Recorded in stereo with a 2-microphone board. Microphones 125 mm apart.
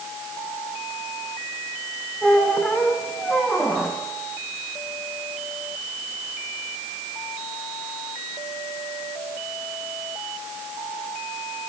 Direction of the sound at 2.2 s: 5° left (ahead or behind).